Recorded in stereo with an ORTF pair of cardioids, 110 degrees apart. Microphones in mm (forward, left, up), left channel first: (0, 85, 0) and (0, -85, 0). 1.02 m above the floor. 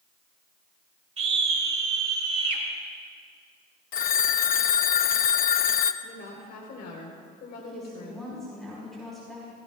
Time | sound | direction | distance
1.2 | a scream | 40° right | 3.5 m
3.9 | a phone ringing | 60° left | 0.6 m
6.0 | a woman speaking | 70° left | 3.5 m
7.6 | a woman speaking | straight ahead | 4.5 m